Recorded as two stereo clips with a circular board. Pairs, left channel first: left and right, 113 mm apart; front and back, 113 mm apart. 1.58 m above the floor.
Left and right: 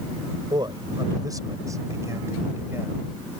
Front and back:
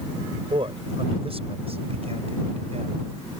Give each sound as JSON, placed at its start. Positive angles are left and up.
{"t": 0.5, "sound": "a man speaking", "azimuth_deg": -140}